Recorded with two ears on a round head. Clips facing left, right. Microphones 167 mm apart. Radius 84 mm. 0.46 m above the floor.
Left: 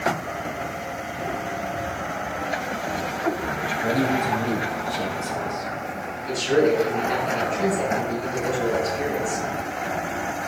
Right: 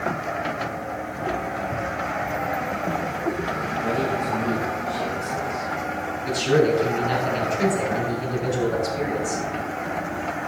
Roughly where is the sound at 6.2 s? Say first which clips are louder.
Even; right.